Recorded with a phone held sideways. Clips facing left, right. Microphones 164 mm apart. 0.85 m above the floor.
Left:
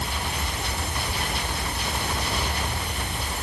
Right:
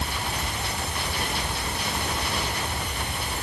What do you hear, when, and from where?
Only background noise.